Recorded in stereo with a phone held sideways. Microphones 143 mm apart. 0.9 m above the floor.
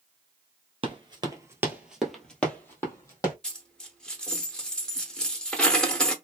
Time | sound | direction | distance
0.8 | running footsteps | 40° right (ahead or behind) | 1.1 m
3.4 | a dropped coin | 5° left (ahead or behind) | 0.7 m